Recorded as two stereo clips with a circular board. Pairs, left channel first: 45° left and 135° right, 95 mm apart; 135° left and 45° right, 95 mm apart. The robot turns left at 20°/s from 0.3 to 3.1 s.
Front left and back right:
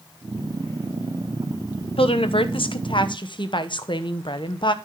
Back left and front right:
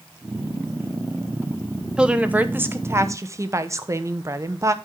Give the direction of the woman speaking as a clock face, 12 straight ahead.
11 o'clock.